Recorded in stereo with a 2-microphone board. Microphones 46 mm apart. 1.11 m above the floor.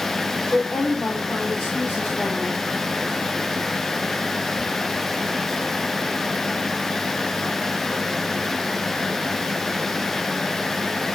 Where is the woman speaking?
80° left, 3 m; by 2.6 s 40° left (ahead or behind), 1.9 m.